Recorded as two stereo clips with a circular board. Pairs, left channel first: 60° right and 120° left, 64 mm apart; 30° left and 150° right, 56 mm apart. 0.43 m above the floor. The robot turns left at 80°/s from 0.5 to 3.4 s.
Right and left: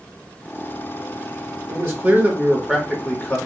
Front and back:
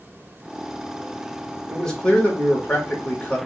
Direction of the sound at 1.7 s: 120° left.